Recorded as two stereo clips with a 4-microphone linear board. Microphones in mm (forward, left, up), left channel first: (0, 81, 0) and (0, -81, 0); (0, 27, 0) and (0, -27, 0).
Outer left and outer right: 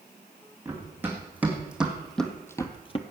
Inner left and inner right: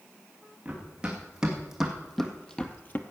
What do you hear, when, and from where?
0.7 s running footsteps: 15° right (ahead or behind), 3.5 m; by 3.0 s 40° left (ahead or behind), 1.0 m